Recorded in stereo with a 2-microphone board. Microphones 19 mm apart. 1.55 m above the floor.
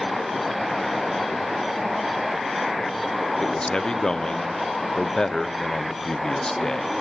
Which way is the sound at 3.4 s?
40° left (ahead or behind).